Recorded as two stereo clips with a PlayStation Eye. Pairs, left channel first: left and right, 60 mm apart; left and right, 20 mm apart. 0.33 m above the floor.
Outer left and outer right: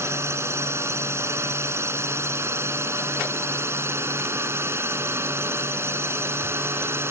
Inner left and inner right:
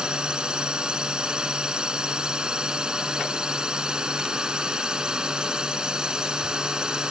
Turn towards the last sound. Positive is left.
turn(degrees=-40)  # may be behind; listen again after turning